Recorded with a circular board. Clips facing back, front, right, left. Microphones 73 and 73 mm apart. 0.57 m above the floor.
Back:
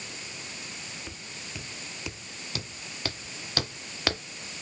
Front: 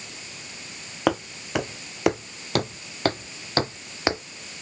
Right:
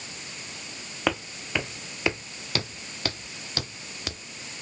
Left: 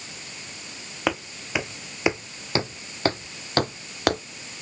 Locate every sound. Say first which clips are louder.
1.1 s footsteps: front 18 dB, left 1 dB; 5° left; by 4.2 s 70° left